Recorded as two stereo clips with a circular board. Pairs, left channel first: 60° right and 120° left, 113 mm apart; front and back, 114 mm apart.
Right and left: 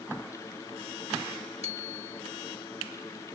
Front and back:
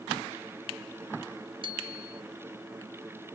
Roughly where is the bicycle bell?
Behind left.